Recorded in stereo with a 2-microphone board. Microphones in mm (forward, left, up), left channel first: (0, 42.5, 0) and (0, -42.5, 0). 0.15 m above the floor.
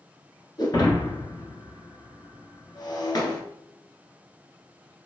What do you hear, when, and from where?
0.6 s breaking glass: 55° left (ahead or behind), 1.1 m